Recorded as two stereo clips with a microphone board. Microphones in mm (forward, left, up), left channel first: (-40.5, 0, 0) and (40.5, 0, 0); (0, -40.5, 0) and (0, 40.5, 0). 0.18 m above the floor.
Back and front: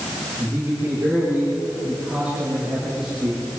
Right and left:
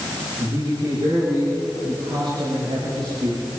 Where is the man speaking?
65° left, 10 m; by 3.4 s 80° left, 7.5 m.